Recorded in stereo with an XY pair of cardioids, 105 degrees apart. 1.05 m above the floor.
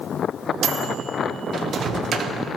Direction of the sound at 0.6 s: 50° right.